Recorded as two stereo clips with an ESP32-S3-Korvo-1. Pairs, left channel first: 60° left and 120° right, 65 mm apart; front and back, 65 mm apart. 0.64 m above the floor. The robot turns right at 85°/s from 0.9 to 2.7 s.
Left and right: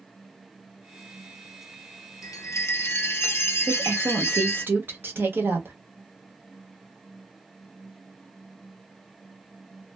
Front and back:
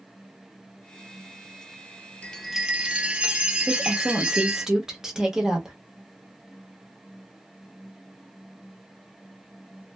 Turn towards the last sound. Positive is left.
turn(degrees=-105)